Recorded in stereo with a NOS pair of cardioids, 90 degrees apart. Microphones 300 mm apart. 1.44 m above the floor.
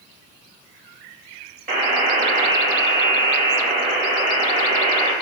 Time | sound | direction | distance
1.7 | a buzzer | 30° right | 2 m